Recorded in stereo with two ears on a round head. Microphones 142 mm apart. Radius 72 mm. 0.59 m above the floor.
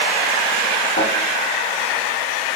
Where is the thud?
90° left, 4.5 m.